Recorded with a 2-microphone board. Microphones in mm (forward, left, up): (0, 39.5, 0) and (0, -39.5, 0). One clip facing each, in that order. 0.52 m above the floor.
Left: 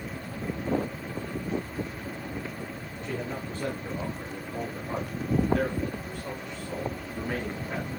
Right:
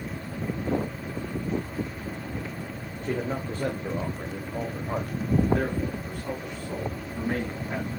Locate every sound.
3.0 s a man speaking: 45° right (ahead or behind), 1.6 m; by 7.9 s 5° right (ahead or behind), 4 m